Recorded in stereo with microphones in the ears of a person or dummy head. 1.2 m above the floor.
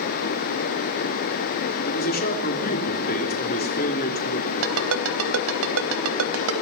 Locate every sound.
1.9 s a man speaking: 50° left (ahead or behind), 3 m
4.6 s a ringtone: 80° right, 3.5 m